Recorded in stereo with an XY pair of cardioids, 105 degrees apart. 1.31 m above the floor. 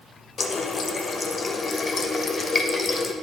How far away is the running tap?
About 0.8 m.